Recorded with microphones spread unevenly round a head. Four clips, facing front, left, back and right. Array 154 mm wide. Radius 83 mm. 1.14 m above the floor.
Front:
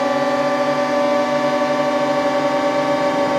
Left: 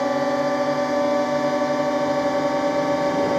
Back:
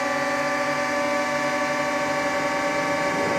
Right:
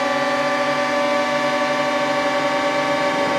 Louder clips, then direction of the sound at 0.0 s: Right 1 dB, front 7 dB; 5° left.